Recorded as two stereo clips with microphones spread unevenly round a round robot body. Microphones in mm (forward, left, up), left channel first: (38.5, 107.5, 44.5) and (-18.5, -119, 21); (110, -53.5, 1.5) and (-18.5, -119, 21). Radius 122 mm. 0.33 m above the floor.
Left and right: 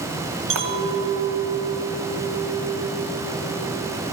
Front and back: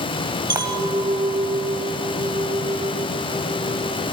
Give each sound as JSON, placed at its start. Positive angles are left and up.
{"t": 0.5, "sound": "a clink", "azimuth_deg": -90, "distance_m": 1.8}